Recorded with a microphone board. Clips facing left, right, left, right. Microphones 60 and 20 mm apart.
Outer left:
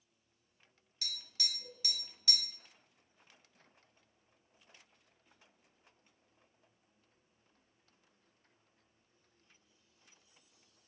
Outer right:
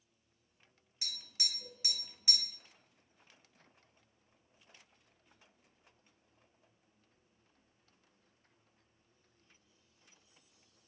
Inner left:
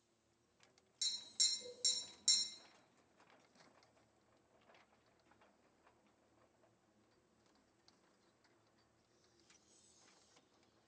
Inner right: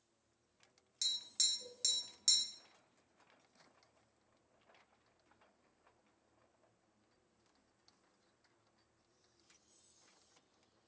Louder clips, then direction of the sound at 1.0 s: Outer left 1 dB, inner right 3 dB; 20° right (ahead or behind).